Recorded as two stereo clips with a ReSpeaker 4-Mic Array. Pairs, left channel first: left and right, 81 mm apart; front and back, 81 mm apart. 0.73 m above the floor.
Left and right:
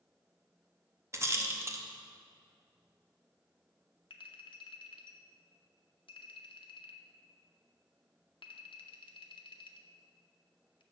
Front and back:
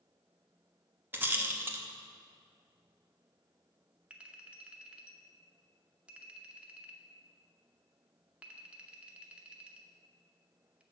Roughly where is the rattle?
Behind right.